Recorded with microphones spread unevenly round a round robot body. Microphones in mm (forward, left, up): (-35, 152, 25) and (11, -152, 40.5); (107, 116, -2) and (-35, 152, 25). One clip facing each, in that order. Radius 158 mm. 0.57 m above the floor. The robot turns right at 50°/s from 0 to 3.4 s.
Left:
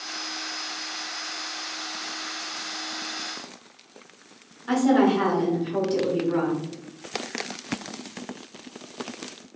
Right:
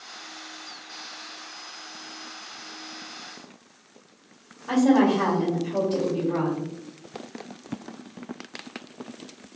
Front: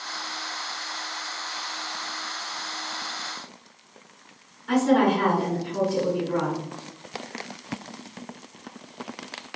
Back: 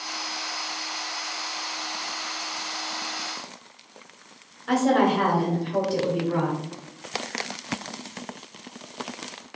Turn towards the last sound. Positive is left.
turn(degrees=150)